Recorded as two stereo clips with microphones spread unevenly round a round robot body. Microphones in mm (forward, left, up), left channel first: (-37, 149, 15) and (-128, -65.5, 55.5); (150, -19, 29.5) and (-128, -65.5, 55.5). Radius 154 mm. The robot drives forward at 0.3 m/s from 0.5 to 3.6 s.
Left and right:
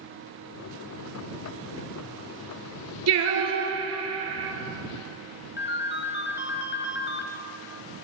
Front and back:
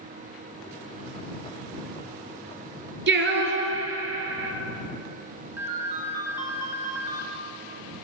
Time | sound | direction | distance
3.1 | singing | 120° right | 1.5 m
5.6 | a ringtone | 110° left | 1.1 m